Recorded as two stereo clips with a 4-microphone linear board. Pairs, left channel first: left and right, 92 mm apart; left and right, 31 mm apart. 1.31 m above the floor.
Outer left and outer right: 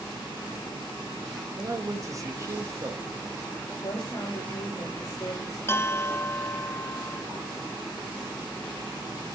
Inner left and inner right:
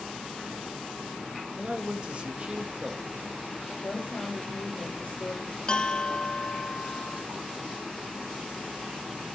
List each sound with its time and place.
1.6 s a man speaking: 35° right (ahead or behind), 1.7 m
3.8 s a woman speaking: 40° left (ahead or behind), 6.5 m
5.7 s a bell: 25° left (ahead or behind), 0.8 m